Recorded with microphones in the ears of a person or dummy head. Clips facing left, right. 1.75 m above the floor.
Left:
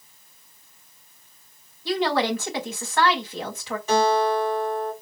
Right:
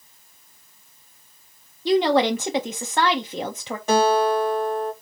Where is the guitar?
45° right (ahead or behind), 1.8 m.